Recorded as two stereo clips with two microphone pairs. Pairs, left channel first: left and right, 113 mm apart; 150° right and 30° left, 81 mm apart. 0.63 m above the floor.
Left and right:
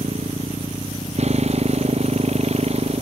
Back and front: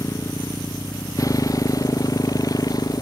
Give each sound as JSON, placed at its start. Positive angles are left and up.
{"t": 0.0, "sound": "a motorcycle", "azimuth_deg": -100}